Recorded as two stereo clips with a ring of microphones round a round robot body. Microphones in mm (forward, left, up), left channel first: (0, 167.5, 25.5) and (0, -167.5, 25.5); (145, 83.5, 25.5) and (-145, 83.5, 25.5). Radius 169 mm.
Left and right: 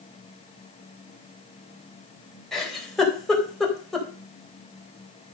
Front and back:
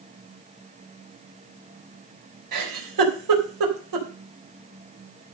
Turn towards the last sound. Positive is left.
turn(degrees=180)